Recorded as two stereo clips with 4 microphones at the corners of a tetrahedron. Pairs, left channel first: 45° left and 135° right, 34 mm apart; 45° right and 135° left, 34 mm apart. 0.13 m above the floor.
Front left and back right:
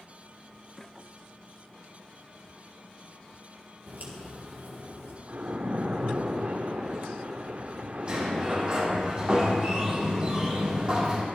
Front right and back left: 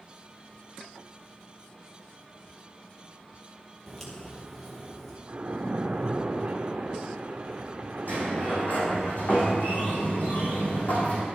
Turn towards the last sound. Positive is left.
turn(degrees=-75)